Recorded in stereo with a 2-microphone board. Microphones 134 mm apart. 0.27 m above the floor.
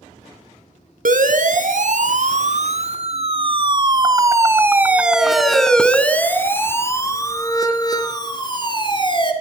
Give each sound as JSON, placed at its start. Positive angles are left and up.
{"t": 1.1, "sound": "a siren", "side_deg": -70, "distance_m": 3.5}